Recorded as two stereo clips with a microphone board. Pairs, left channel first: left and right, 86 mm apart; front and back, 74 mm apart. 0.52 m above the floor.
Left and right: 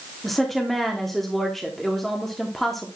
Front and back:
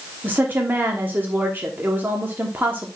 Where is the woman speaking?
175° left, 1.1 m.